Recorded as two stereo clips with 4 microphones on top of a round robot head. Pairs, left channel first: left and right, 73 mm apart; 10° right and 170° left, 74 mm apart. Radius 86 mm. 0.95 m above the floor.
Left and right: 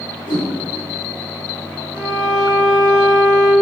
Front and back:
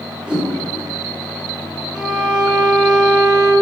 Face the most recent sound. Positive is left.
turn(degrees=80)